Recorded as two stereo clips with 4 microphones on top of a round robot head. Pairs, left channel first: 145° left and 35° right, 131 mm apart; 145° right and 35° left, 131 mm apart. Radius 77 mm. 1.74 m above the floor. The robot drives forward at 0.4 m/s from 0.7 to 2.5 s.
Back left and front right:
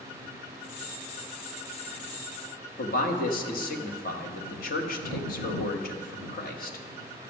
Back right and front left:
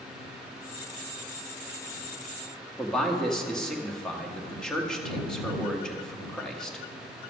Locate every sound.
2.8 s a man speaking: 130° left, 1.1 m